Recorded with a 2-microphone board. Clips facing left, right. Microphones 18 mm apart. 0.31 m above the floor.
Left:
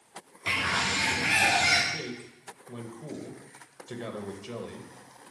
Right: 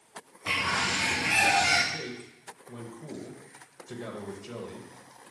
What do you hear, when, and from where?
0.5 s a bird: 50° left (ahead or behind), 3.5 m
1.9 s a man speaking: 20° left (ahead or behind), 0.9 m